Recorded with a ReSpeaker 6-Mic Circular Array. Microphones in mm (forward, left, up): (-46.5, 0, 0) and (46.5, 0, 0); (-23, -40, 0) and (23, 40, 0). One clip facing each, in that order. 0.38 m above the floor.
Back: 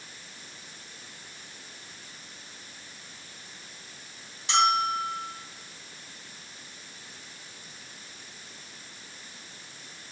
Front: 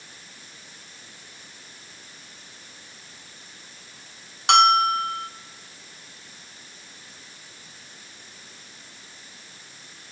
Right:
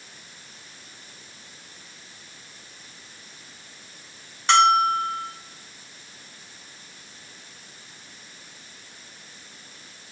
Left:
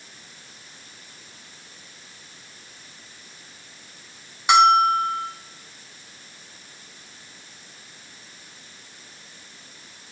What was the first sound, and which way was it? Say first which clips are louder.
A bell: front 7 dB, left 2 dB; 20° right.